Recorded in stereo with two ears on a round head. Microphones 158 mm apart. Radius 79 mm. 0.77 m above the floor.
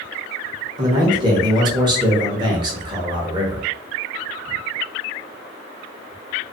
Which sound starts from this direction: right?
A man speaking, at 0.8 s.